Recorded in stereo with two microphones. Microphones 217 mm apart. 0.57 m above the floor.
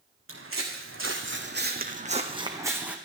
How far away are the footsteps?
About 3 m.